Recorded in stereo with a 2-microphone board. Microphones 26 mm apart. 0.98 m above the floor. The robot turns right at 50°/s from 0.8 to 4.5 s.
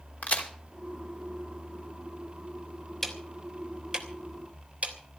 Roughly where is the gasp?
I don't hear a gasp.